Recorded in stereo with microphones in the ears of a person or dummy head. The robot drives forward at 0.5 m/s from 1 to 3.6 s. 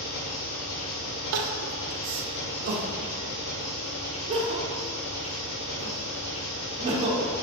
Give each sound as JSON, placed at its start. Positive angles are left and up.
{"t": 0.0, "sound": "an engine running", "side_deg": 75, "distance_m": 2.0}
{"t": 1.3, "sound": "crying", "side_deg": -75, "distance_m": 0.7}